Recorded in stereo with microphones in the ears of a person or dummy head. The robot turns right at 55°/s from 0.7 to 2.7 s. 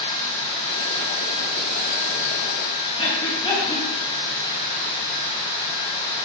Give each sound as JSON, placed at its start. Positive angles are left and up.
{"t": 3.0, "sound": "breathing", "side_deg": 25, "distance_m": 1.5}